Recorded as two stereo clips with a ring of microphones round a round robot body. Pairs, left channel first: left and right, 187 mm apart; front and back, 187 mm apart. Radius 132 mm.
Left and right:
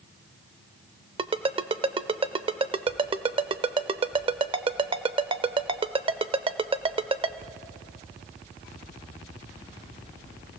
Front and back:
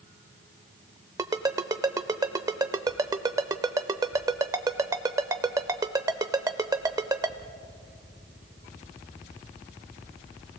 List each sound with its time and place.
1.2 s a ringtone: 125° right, 0.5 m